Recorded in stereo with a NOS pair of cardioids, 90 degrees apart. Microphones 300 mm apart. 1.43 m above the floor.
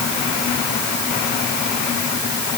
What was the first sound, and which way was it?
Only background noise.